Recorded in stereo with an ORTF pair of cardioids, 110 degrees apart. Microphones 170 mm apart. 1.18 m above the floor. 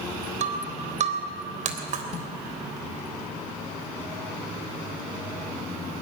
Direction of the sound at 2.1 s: 45° left.